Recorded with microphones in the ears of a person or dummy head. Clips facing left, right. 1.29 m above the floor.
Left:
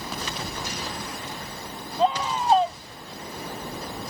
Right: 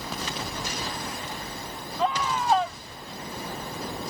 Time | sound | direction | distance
2.0 | a scream | 25° left (ahead or behind) | ?